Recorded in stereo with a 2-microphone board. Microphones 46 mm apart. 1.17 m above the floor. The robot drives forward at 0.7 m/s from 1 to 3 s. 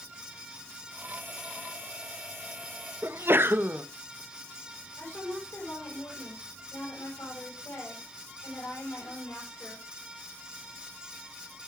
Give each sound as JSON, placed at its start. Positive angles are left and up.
{"t": 3.0, "sound": "a sneeze", "side_deg": -50, "distance_m": 0.9}
{"t": 5.0, "sound": "a woman speaking", "side_deg": 70, "distance_m": 7.0}